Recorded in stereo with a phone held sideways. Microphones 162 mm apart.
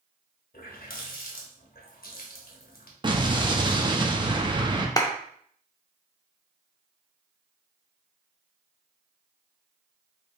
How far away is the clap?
About 0.5 m.